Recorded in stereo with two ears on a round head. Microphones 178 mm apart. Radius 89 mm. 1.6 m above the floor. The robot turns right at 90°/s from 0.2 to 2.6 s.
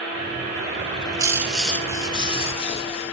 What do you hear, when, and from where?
0.8 s a bird: 30° right (ahead or behind), 0.6 m; by 3.1 s 30° left (ahead or behind), 0.6 m